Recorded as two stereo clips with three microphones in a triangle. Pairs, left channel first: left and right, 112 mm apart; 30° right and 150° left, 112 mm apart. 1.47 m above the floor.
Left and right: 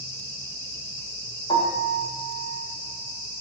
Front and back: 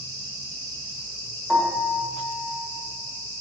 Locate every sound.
1.5 s a piano: 55° left, 1.5 m